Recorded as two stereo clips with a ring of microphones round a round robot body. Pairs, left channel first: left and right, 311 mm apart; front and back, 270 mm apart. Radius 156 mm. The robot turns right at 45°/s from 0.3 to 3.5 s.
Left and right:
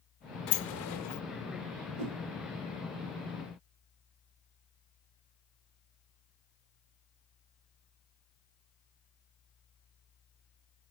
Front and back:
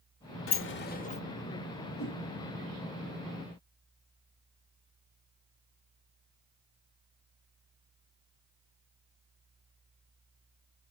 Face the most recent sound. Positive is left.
turn(degrees=0)